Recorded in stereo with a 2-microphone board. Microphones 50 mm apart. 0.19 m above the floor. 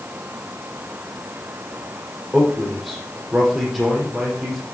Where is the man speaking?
5° right (ahead or behind), 6.5 m.